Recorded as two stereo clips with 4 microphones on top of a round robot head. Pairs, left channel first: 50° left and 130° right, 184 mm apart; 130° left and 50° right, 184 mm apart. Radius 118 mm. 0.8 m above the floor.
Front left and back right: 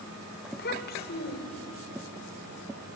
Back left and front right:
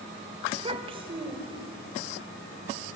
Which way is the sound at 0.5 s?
10° left.